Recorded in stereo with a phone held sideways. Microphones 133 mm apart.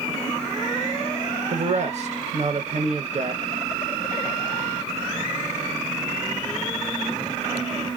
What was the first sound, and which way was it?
A man speaking, 55° right (ahead or behind).